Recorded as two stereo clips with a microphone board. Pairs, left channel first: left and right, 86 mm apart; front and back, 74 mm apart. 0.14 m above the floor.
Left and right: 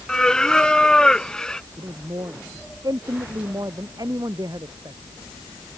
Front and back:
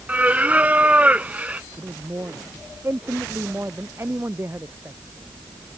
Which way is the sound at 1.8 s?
125° right.